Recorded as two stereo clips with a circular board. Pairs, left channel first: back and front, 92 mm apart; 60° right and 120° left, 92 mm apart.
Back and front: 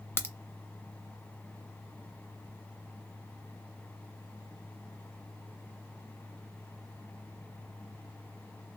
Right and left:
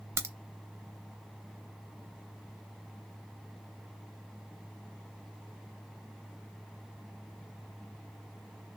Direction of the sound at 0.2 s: 145° left.